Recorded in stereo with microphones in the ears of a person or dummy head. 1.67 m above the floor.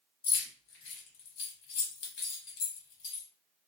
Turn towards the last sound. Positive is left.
turn(degrees=60)  # may be behind; listen again after turning